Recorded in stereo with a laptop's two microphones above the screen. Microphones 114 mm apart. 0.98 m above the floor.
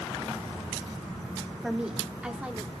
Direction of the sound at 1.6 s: 5° right (ahead or behind).